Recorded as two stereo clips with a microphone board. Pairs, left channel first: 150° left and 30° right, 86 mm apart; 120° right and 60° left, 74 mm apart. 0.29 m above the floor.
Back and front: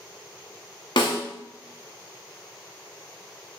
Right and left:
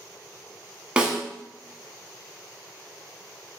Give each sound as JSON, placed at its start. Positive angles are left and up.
{"t": 1.0, "sound": "a snare drum", "azimuth_deg": 135, "distance_m": 0.6}